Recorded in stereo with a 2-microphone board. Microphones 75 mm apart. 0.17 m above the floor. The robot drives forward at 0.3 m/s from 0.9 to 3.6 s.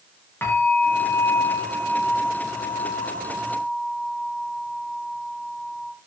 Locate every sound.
0.4 s a bell: 35° left (ahead or behind), 9 m; by 5.9 s 30° left (ahead or behind), 10 m